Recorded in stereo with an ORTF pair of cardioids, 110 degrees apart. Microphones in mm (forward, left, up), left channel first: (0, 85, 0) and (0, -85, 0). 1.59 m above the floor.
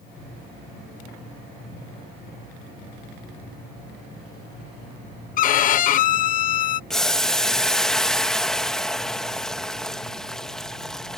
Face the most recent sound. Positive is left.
turn(degrees=5)